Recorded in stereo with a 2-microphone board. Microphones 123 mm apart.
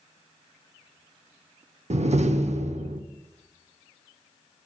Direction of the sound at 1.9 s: 65° right (ahead or behind).